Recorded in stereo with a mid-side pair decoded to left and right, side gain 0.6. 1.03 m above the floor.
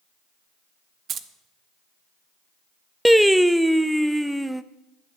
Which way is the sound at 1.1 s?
45° right.